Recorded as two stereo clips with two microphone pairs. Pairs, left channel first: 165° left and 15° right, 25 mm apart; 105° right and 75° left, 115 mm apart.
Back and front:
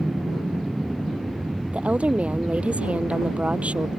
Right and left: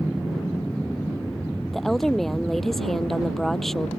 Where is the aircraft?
15° right; by 4.0 s 50° right.